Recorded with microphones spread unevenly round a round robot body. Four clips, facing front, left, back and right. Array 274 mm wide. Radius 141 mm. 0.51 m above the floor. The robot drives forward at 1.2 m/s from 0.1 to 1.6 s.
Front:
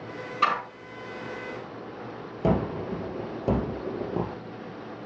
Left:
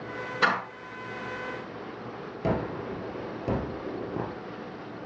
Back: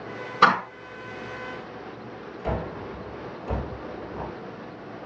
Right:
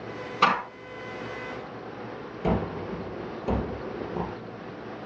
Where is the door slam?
170° right, 1.5 m; by 0.6 s 175° right, 1.7 m.